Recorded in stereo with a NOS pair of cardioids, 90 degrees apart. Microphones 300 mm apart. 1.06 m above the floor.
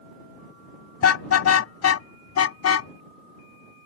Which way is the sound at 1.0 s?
55° left.